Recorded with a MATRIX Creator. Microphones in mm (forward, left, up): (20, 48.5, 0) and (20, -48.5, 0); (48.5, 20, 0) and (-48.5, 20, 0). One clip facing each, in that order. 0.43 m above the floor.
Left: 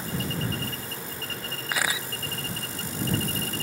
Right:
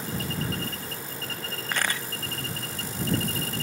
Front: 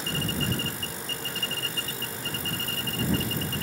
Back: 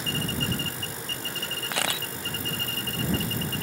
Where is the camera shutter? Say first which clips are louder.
Left 1 dB, back 6 dB; 175° left.